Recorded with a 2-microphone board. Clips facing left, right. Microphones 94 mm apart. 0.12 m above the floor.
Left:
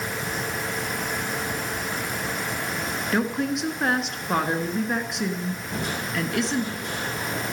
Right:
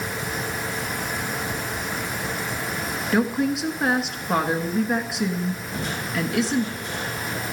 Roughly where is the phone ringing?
I don't hear a phone ringing.